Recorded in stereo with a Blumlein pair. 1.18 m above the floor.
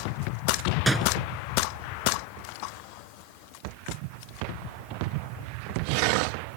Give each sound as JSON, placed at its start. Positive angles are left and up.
{"t": 0.9, "sound": "a door slam", "azimuth_deg": -10}